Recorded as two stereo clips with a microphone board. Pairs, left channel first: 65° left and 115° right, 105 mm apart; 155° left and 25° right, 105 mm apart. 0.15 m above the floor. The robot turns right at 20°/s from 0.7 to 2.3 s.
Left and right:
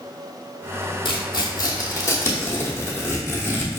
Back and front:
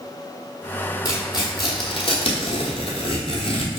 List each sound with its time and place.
1.1 s tearing paper: 110° left, 1.0 m; by 3.8 s 135° left, 1.0 m